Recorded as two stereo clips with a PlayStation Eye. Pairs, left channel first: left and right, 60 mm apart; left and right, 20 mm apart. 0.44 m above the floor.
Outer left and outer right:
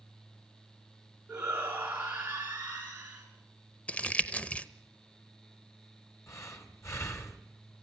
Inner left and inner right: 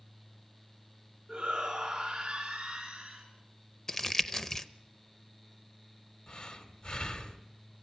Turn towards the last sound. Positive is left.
turn(degrees=50)  # may be behind; listen again after turning